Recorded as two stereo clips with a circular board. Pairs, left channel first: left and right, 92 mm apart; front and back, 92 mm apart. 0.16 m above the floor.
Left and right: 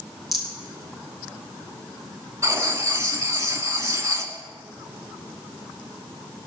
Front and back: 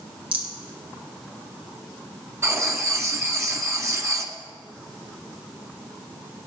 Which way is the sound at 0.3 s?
Straight behind.